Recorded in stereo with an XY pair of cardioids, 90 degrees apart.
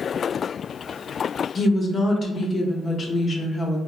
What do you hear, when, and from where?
1.6 s a woman speaking: 40° left, 0.8 m